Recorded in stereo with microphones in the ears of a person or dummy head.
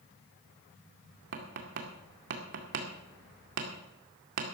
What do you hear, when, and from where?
1.3 s tapping: 60° right (ahead or behind), 2 m